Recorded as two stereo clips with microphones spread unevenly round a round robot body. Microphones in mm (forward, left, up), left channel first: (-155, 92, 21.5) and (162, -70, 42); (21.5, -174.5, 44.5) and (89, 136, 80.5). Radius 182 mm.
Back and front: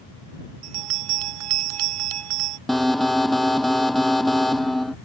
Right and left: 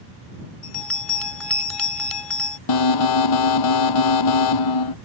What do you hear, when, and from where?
0.6 s a bell: 15° right
2.7 s an alarm: 115° right